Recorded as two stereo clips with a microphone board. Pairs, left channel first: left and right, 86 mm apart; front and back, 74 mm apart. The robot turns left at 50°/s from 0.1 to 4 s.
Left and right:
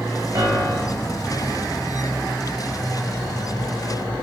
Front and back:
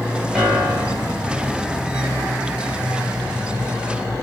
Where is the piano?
90° right, 1.5 m; by 1.2 s 130° right, 1.5 m.